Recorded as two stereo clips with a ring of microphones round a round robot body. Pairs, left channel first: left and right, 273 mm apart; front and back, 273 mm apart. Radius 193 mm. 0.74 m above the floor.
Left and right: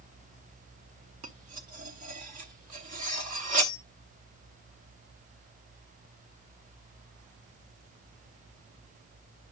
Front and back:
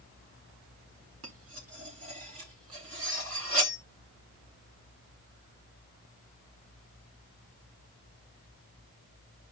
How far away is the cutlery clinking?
About 0.8 m.